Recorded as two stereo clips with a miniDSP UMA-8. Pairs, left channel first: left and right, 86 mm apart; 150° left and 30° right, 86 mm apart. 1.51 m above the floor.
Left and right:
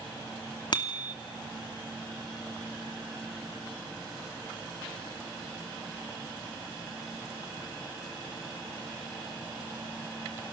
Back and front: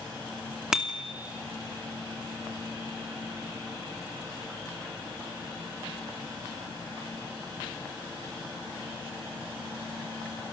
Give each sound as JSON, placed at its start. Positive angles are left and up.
{"t": 0.7, "sound": "a bicycle bell", "azimuth_deg": 55, "distance_m": 2.5}